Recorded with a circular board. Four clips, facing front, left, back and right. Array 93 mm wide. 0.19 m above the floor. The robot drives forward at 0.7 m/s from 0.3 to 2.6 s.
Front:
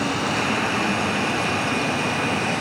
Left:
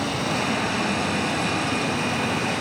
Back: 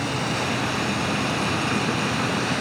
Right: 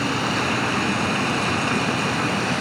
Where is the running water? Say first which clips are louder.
Right 2 dB, front 3 dB; 65° right, 2 m; by 2.6 s 125° right, 2 m.